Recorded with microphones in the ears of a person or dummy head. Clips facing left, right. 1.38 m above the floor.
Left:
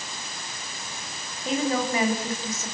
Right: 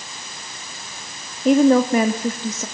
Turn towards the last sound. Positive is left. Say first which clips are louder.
# right 12 dB
turn(degrees=-50)  # may be behind; listen again after turning